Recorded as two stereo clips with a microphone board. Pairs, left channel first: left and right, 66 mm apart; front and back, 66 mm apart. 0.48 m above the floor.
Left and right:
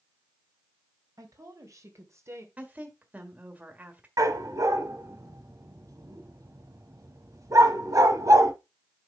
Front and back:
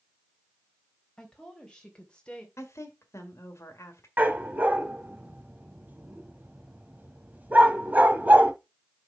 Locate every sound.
1.2 s a woman speaking: 75° right, 2.5 m; by 2.5 s 65° right, 1.6 m
2.6 s a woman speaking: 25° right, 1.4 m
4.2 s a dog barking: 115° right, 0.9 m